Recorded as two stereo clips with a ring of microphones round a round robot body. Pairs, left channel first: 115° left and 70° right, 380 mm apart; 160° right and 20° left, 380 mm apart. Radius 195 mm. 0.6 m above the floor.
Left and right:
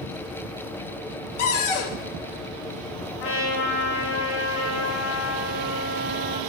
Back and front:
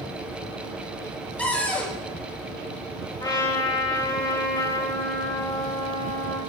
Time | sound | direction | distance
1.4 | a cupboard door | 115° left | 1.3 m
3.2 | a trumpet | 125° left | 2.5 m